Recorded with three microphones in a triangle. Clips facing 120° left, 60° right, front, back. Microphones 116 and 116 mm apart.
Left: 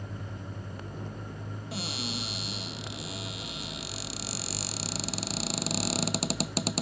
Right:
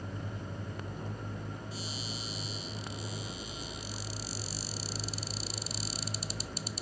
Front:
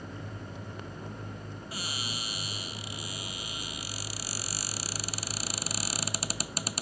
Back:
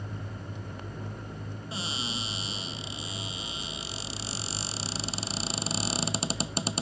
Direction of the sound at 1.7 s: 115° left.